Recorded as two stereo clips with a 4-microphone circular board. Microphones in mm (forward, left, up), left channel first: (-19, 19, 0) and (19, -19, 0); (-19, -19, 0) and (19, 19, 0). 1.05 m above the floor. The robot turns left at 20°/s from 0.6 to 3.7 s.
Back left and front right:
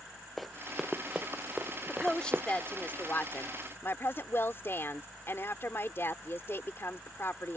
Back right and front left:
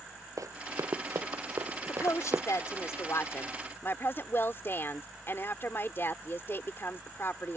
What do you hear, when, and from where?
0.4 s running footsteps: 45° left; by 2.5 s 5° left
1.9 s a woman speaking: 145° right; by 7.6 s straight behind